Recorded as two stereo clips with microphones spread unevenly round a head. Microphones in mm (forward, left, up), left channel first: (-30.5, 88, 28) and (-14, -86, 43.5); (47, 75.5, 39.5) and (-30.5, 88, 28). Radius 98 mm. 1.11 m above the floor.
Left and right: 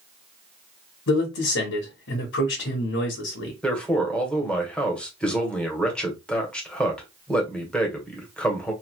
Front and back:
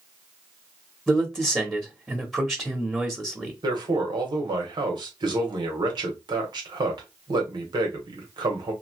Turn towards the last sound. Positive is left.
turn(degrees=175)